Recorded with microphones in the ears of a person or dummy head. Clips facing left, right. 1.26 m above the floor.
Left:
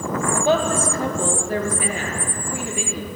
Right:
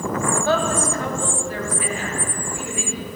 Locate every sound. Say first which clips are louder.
0.3 s a woman speaking: left 3 dB; 15° left (ahead or behind), 1.5 m; by 3.1 s 55° left (ahead or behind), 3 m